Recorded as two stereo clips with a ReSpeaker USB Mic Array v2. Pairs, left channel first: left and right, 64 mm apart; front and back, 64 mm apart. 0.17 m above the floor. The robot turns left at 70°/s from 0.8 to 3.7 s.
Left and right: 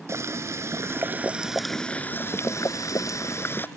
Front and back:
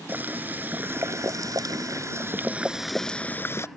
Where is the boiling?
120° right; by 3.7 s 35° left.